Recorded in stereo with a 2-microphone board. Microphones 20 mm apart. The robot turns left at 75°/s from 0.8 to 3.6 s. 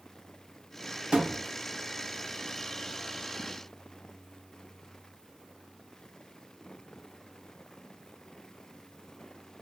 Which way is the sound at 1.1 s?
70° right (ahead or behind).